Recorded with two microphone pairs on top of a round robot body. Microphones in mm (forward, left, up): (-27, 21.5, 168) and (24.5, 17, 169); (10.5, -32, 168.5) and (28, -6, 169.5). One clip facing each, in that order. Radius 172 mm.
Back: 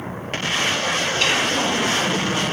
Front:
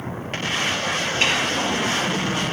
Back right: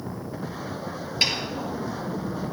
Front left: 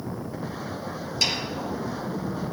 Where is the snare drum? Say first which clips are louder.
Even, back right 1 dB; 65° right, 3 m.